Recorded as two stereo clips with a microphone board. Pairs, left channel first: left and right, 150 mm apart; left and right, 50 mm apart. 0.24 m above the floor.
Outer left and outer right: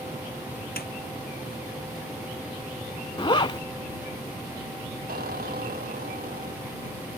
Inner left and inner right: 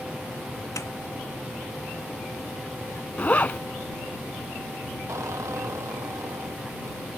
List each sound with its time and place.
0.8 s a snare drum: 75° left (ahead or behind)
3.2 s a zipper: 35° left (ahead or behind)
5.1 s a squeak: 75° right (ahead or behind)